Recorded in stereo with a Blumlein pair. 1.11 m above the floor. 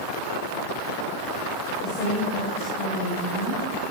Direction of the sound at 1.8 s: 20° left.